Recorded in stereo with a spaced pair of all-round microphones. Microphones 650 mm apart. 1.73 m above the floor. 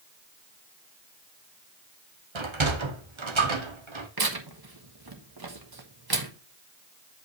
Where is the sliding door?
45° right (ahead or behind), 1.2 m.